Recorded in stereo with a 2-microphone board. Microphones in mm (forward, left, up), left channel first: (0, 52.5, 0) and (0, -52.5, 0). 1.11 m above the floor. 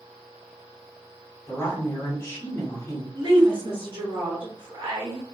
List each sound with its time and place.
1.5 s a woman speaking: 25° left (ahead or behind), 1.7 m
3.1 s a woman speaking: 45° right (ahead or behind), 0.9 m